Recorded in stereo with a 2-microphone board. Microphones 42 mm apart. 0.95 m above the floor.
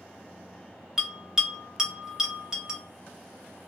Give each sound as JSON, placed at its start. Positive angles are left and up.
{"t": 1.0, "sound": "a bell", "side_deg": -15, "distance_m": 1.2}